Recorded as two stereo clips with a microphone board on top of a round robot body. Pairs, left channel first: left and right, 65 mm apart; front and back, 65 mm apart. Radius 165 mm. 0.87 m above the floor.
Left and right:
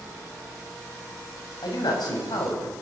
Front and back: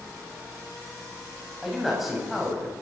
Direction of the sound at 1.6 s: 90° left.